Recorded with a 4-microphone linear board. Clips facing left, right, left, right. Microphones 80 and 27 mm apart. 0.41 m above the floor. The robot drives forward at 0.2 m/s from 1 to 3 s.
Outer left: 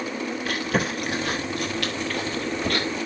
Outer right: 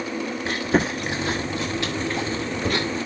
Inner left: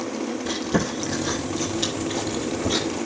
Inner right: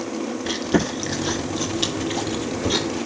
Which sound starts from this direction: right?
Chewing, at 0.5 s.